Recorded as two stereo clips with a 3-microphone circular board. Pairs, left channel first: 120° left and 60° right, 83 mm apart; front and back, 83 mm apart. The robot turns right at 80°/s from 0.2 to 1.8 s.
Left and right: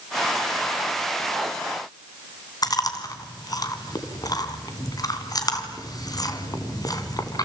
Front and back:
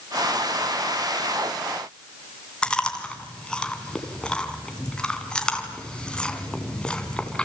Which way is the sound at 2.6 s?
80° left.